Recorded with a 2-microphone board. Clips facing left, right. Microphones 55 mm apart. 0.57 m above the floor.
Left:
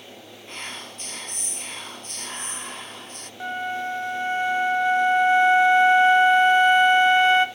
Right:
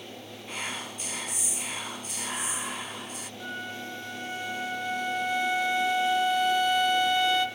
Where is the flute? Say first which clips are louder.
Left 10 dB; 35° left (ahead or behind), 0.7 m.